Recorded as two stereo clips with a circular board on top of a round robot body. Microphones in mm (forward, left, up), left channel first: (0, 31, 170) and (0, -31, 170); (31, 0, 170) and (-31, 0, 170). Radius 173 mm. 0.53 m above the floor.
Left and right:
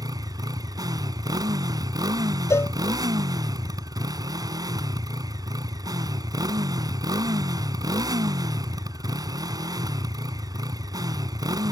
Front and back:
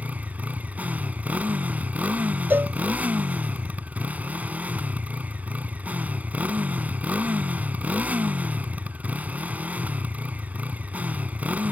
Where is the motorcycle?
110° right.